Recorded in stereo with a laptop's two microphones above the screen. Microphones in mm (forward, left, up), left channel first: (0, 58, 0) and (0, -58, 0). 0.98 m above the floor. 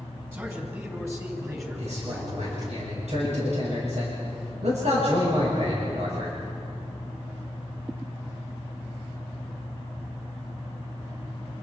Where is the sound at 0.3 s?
20° right (ahead or behind), 7 m; by 2.7 s 35° right (ahead or behind), 9 m.